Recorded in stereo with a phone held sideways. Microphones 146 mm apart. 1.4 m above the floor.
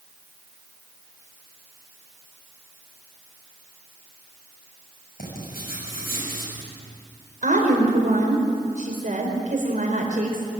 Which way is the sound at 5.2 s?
90° left.